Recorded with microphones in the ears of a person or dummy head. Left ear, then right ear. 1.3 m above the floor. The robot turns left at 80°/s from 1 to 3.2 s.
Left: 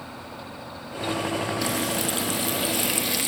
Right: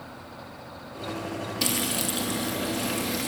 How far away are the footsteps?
I don't hear footsteps.